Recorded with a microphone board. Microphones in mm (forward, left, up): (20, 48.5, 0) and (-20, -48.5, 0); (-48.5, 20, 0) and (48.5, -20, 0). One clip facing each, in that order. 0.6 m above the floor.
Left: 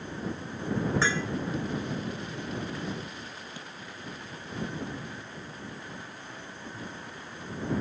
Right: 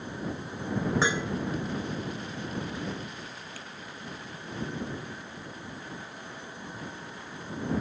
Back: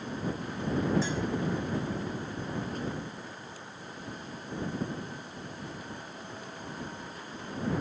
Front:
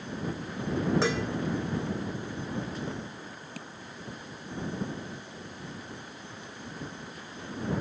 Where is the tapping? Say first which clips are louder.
Left 1 dB, front 3 dB; straight ahead.